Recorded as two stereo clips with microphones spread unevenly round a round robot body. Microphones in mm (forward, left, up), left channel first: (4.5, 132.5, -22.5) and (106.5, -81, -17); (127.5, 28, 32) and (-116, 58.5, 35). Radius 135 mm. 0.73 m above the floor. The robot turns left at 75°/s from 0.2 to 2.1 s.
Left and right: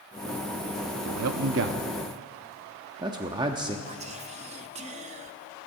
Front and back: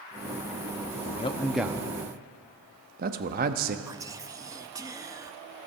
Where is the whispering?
115° right, 0.6 m.